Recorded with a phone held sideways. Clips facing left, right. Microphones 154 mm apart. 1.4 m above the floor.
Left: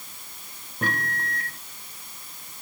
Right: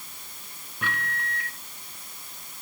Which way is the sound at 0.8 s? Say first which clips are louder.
Left 3 dB; 40° left (ahead or behind).